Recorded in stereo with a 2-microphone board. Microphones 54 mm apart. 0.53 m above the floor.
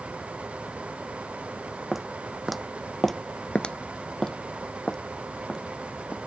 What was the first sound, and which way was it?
Footsteps, centre (ahead or behind).